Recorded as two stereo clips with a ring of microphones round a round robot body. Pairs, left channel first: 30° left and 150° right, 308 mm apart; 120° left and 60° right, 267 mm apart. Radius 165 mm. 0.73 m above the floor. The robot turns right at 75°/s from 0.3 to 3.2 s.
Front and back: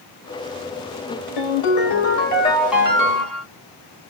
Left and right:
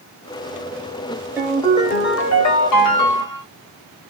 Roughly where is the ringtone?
Ahead.